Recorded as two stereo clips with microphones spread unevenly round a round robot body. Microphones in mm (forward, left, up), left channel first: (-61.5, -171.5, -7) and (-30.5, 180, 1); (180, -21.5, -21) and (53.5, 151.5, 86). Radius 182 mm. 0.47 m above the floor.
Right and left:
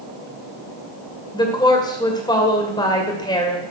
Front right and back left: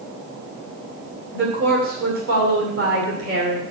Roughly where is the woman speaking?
Behind.